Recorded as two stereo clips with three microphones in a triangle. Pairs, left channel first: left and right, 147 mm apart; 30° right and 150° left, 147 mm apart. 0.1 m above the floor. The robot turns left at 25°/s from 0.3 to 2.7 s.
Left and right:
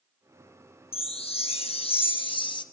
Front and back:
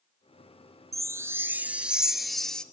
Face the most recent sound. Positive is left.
turn(degrees=50)